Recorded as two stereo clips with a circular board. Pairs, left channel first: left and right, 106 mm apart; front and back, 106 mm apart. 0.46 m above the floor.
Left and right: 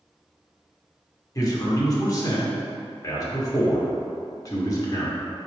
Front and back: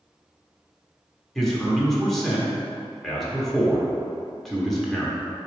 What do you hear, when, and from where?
1.4 s a man speaking: 85° left, 0.9 m